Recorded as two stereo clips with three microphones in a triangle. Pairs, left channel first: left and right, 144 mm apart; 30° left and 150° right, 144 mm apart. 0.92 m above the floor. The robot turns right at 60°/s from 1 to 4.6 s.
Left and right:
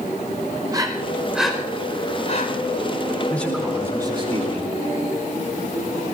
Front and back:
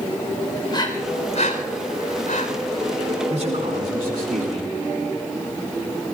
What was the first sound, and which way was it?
Breathing, 30° right.